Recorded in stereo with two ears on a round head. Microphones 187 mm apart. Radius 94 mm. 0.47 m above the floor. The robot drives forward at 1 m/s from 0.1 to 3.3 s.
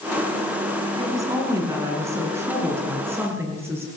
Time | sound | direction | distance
1.0 | a woman speaking | 15° right (ahead or behind) | 5.5 m